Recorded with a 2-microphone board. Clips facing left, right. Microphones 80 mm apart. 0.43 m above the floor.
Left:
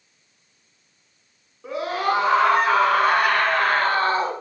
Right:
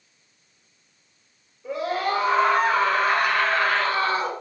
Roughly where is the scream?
Left.